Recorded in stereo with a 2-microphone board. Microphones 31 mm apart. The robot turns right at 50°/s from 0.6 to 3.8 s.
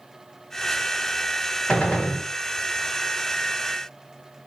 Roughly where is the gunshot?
Left.